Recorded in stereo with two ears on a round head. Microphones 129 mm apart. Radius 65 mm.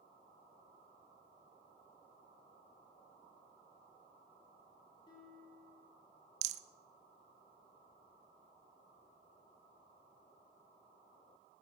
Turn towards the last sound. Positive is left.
turn(degrees=-55)  # may be behind; listen again after turning